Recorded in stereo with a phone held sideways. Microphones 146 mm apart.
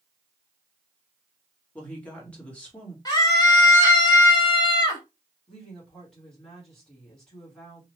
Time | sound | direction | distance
1.8 | a woman speaking | 10° left (ahead or behind) | 1.7 m
3.0 | a scream | 25° left (ahead or behind) | 1.9 m
5.5 | a woman speaking | 5° left (ahead or behind) | 1.7 m